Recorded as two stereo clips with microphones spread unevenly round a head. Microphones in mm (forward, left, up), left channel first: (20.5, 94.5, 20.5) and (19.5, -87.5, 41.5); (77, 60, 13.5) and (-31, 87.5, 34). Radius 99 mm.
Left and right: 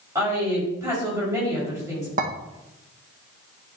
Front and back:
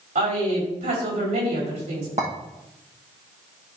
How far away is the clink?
About 1.0 m.